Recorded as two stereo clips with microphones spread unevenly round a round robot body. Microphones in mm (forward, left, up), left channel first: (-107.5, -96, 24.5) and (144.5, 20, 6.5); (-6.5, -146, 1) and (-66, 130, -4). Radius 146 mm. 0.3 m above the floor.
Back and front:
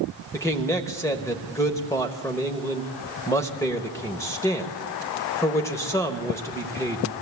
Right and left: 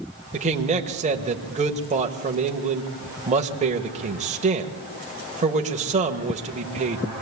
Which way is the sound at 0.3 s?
130° left.